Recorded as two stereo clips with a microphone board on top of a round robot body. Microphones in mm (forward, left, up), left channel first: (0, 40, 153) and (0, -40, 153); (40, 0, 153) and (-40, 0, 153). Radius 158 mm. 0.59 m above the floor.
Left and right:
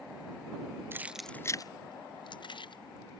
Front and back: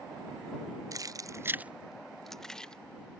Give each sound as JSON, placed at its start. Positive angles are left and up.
{"t": 0.9, "sound": "keys jangling", "azimuth_deg": -145}